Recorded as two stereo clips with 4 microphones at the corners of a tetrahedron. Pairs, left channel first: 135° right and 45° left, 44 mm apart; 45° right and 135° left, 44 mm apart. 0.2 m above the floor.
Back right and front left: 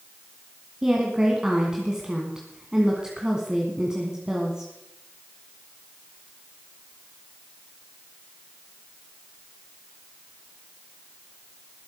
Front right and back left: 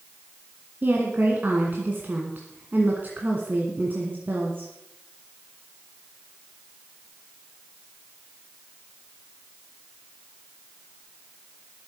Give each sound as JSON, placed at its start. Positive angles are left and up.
{"t": 0.8, "sound": "a woman speaking", "azimuth_deg": 115, "distance_m": 2.0}